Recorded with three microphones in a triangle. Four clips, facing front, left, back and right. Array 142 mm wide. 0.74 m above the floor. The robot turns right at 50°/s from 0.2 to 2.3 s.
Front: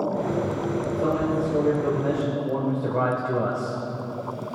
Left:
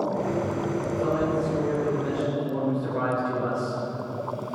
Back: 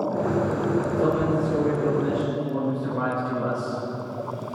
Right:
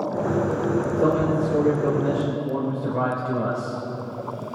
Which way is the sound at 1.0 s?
95° right.